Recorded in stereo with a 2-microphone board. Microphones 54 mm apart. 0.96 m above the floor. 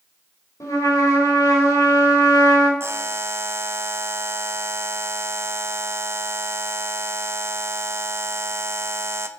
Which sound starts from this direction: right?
A buzzer, at 2.8 s.